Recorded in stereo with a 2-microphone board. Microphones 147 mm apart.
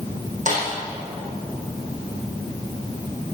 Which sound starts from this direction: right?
A snare drum, at 0.5 s.